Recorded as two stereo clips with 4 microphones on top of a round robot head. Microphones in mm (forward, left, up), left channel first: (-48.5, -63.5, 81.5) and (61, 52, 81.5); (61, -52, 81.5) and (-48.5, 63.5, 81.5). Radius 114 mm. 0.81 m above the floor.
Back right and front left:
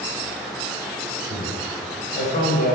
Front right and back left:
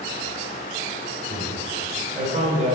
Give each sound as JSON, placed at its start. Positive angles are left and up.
{"t": 1.3, "sound": "a man speaking", "azimuth_deg": -170, "distance_m": 3.0}